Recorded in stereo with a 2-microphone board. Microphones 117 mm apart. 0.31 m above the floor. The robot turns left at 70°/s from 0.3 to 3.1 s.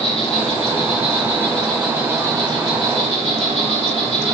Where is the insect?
100° left, 3 m; by 4.3 s 95° right, 3 m.